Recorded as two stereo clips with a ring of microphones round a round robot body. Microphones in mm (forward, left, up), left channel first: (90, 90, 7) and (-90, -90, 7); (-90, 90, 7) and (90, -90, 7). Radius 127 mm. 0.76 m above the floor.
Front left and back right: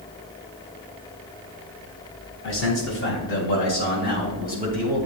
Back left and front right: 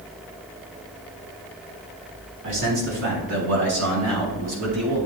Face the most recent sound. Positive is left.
turn(degrees=-15)